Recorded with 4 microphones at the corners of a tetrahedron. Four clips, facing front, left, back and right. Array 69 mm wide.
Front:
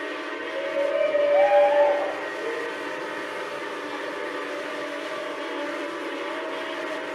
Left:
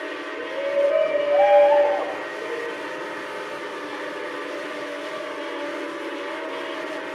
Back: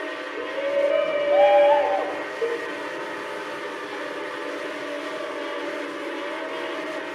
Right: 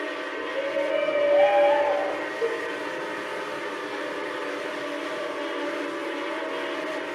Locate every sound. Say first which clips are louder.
0.4 s a shout: left 6 dB, back 4 dB; 165° left, 4.5 m; by 2.2 s 155° left, 3 m
2.4 s a cowbell: right 4 dB, back 6 dB; 150° right, 3.5 m